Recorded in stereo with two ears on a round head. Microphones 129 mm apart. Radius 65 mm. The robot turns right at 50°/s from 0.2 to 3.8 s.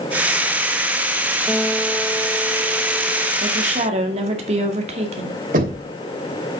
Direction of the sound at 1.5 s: 15° right (ahead or behind).